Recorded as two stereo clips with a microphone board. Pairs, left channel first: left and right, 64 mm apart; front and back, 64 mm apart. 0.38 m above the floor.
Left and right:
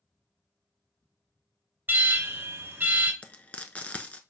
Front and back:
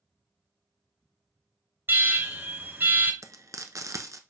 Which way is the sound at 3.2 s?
155° left.